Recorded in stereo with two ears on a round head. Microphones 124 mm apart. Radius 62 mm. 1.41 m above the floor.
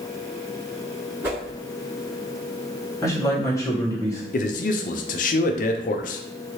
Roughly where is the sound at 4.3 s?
Left.